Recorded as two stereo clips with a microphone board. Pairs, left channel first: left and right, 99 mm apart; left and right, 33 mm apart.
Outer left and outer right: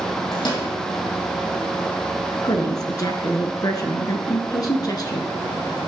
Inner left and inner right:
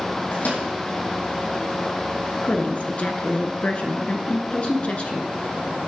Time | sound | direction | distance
0.3 | a microwave | 50° left (ahead or behind) | 4 m
2.4 | a woman speaking | 40° left (ahead or behind) | 1.4 m